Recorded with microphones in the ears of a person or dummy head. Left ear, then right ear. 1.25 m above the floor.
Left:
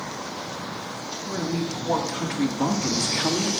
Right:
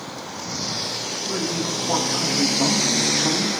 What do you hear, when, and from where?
1.3 s a woman speaking: 30° right (ahead or behind), 2.5 m; by 3.5 s centre (ahead or behind), 1.8 m